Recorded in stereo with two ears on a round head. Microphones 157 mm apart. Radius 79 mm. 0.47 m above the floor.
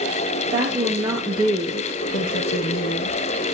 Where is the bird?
No bird in this recording.